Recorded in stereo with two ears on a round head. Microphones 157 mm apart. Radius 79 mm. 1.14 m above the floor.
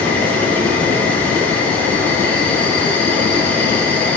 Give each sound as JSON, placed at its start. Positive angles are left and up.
{"t": 0.0, "sound": "an insect", "side_deg": 10, "distance_m": 1.8}